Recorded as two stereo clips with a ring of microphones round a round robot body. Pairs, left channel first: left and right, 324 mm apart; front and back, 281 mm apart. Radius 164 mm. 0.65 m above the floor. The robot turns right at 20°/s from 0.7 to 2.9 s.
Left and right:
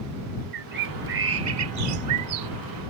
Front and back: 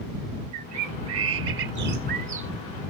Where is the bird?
145° right; by 2.5 s 110° right.